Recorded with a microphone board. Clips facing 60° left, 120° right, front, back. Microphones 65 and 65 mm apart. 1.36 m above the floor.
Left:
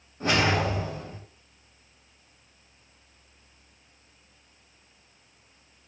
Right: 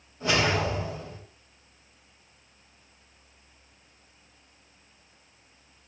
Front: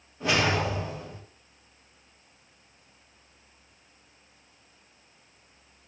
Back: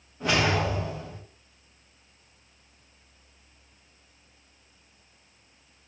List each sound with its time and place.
0.2 s a whoosh: 85° left, 1.2 m